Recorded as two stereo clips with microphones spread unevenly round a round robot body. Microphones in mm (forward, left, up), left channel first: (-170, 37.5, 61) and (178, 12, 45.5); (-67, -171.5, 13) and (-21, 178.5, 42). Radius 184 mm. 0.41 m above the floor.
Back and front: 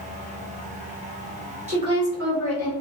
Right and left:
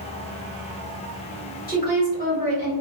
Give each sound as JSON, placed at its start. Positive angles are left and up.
{"t": 1.7, "sound": "a woman speaking", "azimuth_deg": -60, "distance_m": 1.5}